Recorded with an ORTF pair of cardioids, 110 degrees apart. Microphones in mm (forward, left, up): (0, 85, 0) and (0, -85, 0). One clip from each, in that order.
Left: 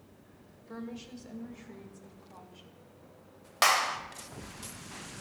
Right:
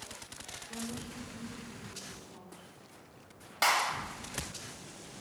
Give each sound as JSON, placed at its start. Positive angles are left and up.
{"t": 0.7, "sound": "a woman speaking", "azimuth_deg": 55, "distance_m": 1.2}
{"t": 3.6, "sound": "a clap", "azimuth_deg": 40, "distance_m": 0.9}